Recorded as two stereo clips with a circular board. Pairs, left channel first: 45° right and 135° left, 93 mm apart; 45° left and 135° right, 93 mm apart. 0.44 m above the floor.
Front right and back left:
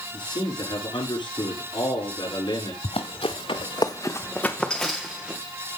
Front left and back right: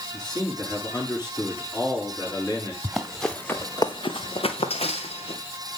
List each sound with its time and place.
0.1 s a man speaking: 5° right, 7.5 m
2.8 s running footsteps: 50° right, 2 m; by 5.4 s 55° left, 3 m